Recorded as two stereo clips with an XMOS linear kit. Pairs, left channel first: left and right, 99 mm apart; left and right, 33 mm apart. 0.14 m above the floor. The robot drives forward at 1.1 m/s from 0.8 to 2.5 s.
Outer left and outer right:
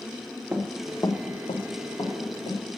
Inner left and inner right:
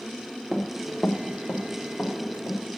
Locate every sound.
0.5 s running footsteps: 15° right (ahead or behind), 1.0 m; by 2.8 s 65° left (ahead or behind), 3 m